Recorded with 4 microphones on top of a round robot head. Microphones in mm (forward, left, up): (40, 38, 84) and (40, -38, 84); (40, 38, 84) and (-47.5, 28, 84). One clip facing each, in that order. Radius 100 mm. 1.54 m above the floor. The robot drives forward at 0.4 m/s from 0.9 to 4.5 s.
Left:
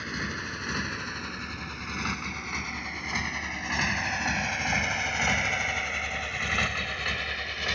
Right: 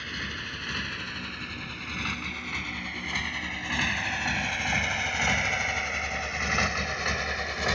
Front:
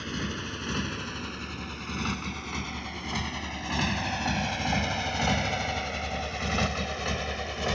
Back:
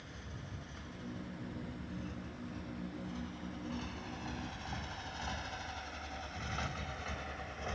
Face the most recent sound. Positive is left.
turn(degrees=-25)